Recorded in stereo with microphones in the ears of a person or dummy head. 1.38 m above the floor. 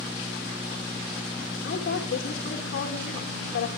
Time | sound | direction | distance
1.6 | a woman speaking | 60° left (ahead or behind) | 2 m